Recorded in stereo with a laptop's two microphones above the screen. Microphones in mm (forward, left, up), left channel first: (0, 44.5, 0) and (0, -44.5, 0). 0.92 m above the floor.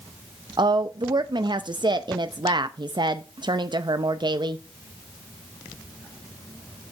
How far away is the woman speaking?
About 0.5 m.